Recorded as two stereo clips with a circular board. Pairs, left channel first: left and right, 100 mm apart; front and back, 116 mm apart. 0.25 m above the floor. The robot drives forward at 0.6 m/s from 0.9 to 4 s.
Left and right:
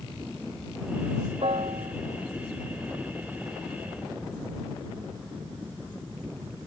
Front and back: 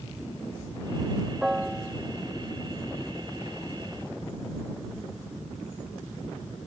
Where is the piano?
95° right.